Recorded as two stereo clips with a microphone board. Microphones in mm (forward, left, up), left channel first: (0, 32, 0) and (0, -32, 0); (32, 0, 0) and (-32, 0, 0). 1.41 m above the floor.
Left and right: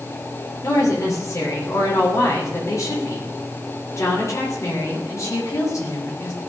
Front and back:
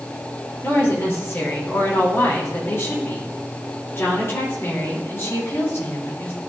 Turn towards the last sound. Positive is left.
turn(degrees=50)